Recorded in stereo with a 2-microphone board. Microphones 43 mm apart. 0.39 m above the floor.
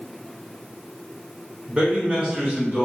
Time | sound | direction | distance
1.7 | a man speaking | 25° right (ahead or behind) | 1.1 m